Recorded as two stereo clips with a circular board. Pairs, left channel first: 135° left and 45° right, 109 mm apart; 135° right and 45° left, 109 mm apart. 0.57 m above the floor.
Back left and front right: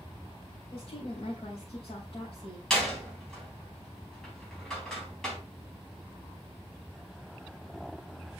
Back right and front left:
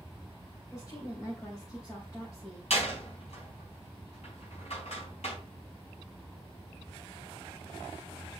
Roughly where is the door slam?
Behind right.